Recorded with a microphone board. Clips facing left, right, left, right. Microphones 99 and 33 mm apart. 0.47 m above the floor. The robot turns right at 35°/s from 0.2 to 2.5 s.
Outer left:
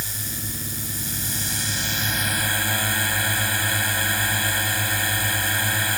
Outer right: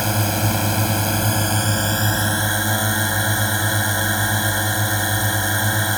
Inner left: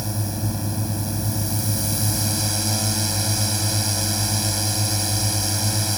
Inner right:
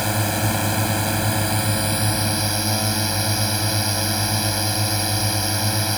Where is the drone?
105° right; by 6.0 s 25° right.